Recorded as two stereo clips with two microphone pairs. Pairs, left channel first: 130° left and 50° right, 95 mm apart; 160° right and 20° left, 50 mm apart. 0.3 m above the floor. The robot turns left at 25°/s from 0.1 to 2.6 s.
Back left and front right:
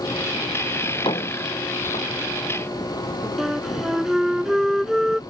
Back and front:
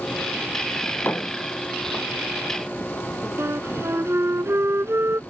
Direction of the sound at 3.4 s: 35° left.